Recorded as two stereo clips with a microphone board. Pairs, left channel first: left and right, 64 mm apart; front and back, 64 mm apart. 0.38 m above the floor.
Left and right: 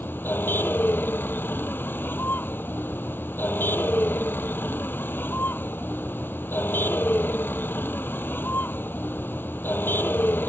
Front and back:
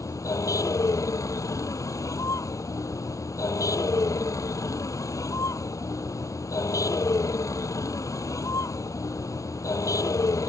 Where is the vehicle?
35° left.